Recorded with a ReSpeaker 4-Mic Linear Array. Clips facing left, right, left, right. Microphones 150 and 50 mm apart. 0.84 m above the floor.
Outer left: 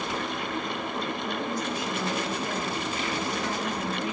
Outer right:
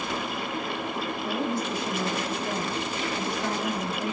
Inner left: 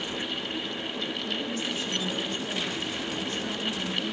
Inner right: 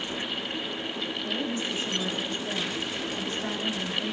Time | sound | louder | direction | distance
1.2 | a woman speaking | outer right 2 dB, inner right 1 dB | 30° right (ahead or behind) | 5 m